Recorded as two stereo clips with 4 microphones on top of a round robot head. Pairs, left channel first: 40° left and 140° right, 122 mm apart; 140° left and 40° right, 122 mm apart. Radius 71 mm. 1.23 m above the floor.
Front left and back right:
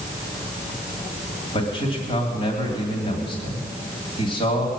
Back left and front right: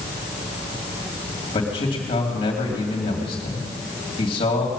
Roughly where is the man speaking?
Left.